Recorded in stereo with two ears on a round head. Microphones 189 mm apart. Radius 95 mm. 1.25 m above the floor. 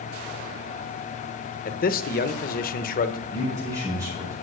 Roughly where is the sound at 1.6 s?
Left.